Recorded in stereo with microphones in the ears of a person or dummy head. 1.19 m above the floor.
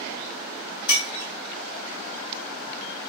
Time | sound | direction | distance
0.9 | breaking glass | 65° left (ahead or behind) | 1.6 m